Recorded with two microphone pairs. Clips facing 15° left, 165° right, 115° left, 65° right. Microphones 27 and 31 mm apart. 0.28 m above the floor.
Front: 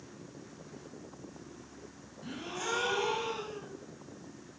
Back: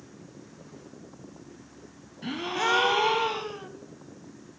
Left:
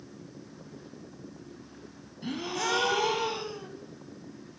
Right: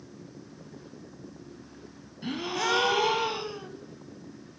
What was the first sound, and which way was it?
A gasp, 140° right.